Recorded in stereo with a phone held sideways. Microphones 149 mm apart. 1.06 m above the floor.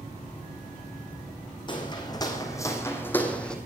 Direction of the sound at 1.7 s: 30° left (ahead or behind).